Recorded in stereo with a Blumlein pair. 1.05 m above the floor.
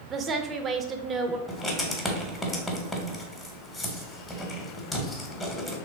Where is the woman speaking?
20° right, 0.6 m.